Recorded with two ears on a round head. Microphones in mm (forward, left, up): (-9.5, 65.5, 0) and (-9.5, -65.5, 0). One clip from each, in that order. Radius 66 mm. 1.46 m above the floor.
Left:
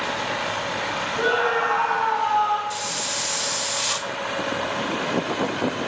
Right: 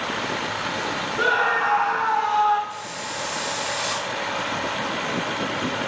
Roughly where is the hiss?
Left.